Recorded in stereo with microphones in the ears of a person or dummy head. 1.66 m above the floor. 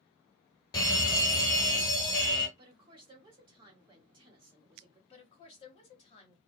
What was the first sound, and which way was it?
A fire alarm, 20° left (ahead or behind).